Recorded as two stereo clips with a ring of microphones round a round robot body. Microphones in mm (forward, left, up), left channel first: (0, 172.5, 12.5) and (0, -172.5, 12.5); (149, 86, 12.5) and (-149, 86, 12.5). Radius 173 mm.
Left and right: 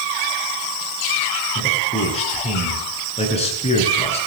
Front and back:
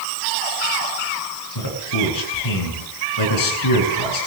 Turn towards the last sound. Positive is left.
turn(degrees=15)